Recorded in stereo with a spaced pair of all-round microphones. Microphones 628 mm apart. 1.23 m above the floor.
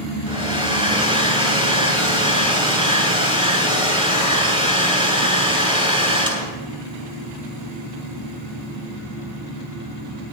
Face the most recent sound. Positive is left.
turn(degrees=-10)  # may be behind; listen again after turning